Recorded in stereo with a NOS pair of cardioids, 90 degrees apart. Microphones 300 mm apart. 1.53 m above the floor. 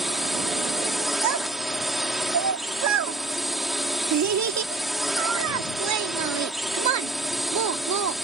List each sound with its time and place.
0.0 s a drone: straight ahead
1.2 s a child speaking: 60° right